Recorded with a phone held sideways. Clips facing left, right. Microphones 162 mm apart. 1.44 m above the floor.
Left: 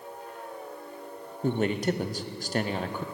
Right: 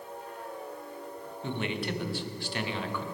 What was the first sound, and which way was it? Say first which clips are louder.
A man speaking: left 7 dB; 40° left (ahead or behind).